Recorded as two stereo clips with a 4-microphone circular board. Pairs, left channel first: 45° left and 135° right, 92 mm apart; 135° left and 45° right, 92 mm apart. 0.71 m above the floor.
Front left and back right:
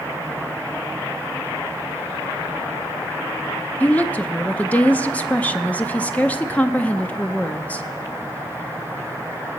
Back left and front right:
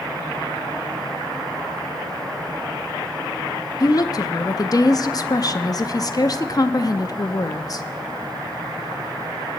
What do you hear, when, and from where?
3.8 s a woman speaking: 115° left, 0.6 m